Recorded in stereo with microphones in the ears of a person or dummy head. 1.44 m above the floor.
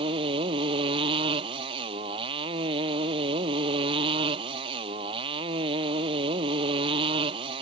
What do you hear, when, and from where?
0.0 s a motorcycle: 30° right (ahead or behind)